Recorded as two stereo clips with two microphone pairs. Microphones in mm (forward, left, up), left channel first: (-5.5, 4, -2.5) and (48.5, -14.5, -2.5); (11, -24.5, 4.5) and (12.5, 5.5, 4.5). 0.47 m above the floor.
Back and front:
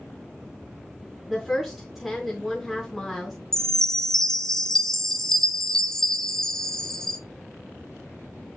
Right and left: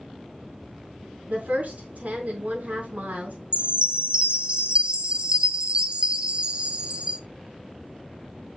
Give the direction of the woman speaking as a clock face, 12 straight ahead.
10 o'clock.